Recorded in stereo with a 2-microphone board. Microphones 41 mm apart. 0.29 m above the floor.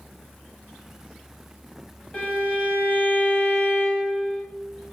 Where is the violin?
30° left (ahead or behind), 1.0 m.